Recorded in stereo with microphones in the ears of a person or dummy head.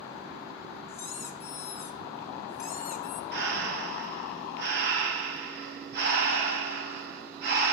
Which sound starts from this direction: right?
Breathing, at 3.3 s.